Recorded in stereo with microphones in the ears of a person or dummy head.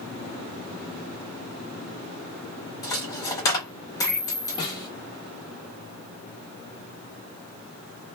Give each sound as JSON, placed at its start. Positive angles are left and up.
{"t": 2.8, "sound": "a dropped coin", "side_deg": 20, "distance_m": 0.7}
{"t": 4.6, "sound": "a snare drum", "side_deg": 25, "distance_m": 1.2}